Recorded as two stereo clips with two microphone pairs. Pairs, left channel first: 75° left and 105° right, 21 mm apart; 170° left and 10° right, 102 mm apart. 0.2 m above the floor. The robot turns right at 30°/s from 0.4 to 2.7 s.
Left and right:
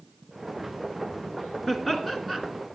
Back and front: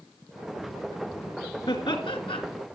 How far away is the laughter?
About 2 m.